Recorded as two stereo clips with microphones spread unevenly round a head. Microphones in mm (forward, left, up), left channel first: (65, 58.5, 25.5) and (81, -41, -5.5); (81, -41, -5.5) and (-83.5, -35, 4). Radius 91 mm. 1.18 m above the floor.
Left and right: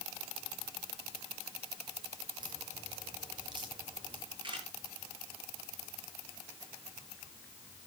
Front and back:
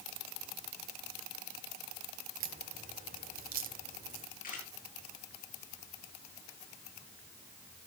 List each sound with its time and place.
2.4 s a crack: 150° right, 2 m
4.4 s a camera shutter: 40° right, 8.5 m